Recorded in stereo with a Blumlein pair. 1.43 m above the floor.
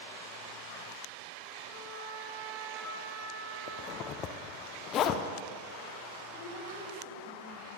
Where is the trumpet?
10° right, 3.5 m.